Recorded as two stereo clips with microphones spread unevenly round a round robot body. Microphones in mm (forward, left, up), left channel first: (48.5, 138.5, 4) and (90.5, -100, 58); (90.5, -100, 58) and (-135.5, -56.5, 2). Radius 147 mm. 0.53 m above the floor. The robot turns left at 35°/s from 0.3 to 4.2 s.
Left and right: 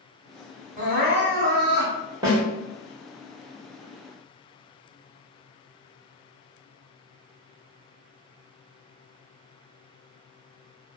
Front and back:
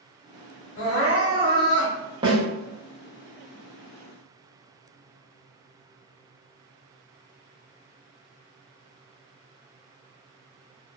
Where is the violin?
No violin in this recording.